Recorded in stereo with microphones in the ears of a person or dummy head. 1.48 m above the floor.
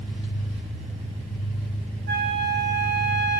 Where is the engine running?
25° right (ahead or behind), 2.5 m.